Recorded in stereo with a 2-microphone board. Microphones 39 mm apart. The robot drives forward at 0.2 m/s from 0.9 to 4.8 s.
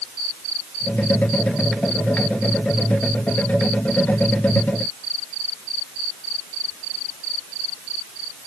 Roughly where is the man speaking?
I don't hear a man speaking.